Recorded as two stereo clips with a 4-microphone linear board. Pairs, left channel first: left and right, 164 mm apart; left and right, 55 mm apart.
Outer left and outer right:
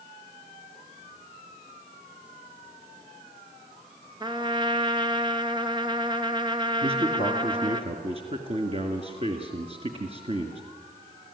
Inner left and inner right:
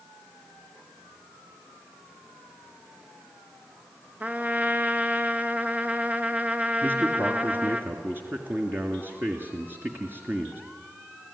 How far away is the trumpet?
About 1.1 m.